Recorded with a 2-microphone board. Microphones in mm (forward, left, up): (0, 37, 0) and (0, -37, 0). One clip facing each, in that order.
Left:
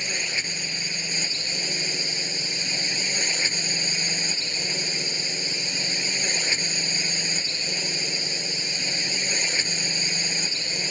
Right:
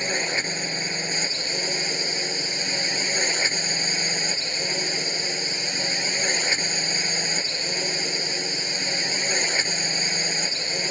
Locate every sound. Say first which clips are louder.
0.0 s a drone: right 5 dB; 40° right (ahead or behind)